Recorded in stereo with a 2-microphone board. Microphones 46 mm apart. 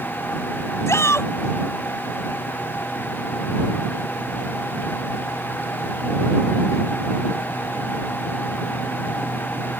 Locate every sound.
0.9 s a shout: 85° left